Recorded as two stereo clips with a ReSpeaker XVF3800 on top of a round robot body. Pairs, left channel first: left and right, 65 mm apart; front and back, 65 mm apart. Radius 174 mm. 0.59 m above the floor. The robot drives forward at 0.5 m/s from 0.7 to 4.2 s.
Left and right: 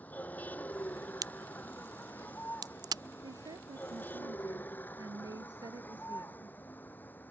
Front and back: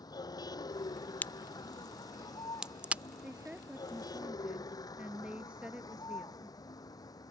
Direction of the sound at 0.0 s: 25° left.